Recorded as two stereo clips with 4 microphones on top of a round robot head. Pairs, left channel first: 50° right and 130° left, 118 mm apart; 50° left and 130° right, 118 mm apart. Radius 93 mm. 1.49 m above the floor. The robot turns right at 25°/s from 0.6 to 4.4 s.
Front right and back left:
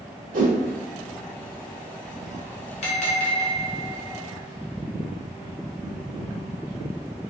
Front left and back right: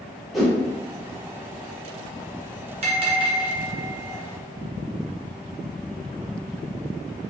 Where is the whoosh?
140° left, 1.4 m.